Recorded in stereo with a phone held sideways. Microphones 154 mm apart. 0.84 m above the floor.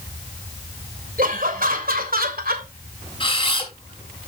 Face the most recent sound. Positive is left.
turn(degrees=35)  # may be behind; listen again after turning